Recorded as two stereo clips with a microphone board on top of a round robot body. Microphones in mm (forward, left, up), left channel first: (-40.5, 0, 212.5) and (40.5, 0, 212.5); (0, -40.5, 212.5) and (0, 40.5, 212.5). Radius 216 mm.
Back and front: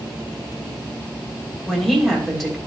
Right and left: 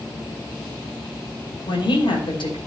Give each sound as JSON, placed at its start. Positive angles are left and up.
{"t": 1.7, "sound": "a woman speaking", "azimuth_deg": -95, "distance_m": 3.5}